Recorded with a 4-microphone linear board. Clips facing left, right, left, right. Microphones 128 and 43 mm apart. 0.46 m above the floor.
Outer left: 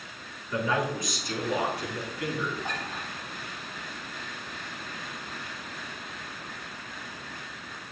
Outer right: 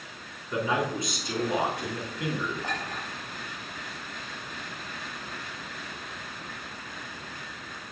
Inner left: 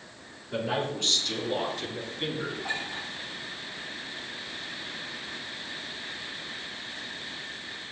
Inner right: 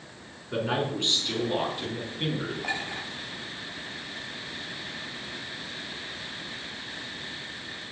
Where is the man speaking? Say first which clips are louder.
Even, inner right 2 dB; 25° right (ahead or behind), 4.5 m; by 2.5 s 20° right (ahead or behind), 3.5 m.